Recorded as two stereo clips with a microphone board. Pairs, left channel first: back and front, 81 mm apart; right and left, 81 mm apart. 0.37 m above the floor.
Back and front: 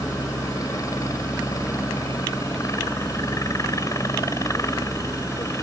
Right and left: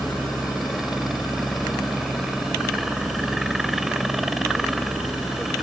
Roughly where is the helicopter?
Behind.